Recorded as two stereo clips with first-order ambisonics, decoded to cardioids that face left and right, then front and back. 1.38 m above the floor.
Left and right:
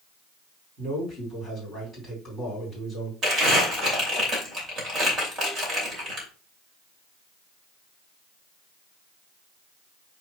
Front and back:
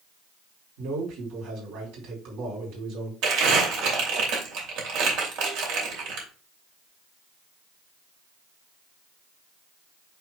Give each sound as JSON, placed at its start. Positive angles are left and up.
{"t": 0.8, "sound": "a man speaking", "azimuth_deg": -165, "distance_m": 4.5}
{"t": 3.2, "sound": "crumpling", "azimuth_deg": -150, "distance_m": 2.5}